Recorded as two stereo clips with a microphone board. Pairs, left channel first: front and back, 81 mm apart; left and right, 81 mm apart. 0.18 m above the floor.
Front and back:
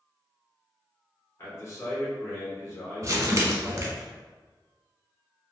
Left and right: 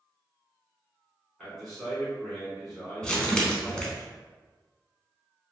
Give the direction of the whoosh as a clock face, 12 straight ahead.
No whoosh in this recording.